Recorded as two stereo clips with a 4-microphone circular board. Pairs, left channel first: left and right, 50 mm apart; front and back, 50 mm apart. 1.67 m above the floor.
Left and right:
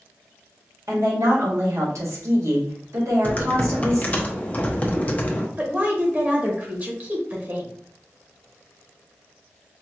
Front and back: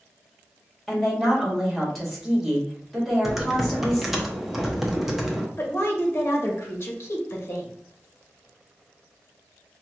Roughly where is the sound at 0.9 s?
Right.